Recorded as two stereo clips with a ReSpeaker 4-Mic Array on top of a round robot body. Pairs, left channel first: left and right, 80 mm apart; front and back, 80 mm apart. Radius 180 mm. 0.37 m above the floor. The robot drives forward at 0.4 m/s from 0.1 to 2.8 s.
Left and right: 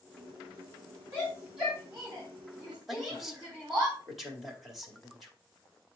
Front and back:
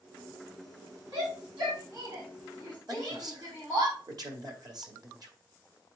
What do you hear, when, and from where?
1.1 s a shout: 165° right, 4 m; by 3.9 s 170° right, 4.5 m
2.9 s a man speaking: straight behind, 1.9 m